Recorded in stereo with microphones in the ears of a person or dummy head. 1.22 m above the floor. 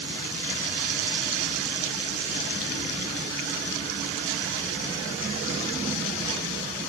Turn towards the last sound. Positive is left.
No sound to turn to.